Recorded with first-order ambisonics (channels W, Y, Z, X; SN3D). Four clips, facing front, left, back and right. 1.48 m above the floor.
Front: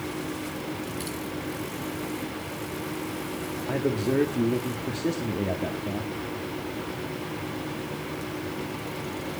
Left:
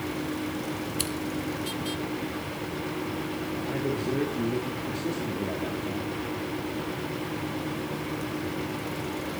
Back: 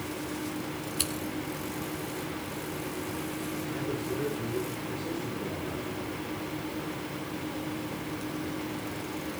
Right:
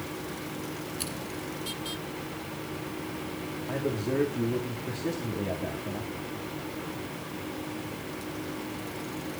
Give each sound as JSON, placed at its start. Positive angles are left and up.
{"t": 1.0, "sound": "scissors", "azimuth_deg": 140, "distance_m": 8.0}
{"t": 3.7, "sound": "a man speaking", "azimuth_deg": 0, "distance_m": 3.0}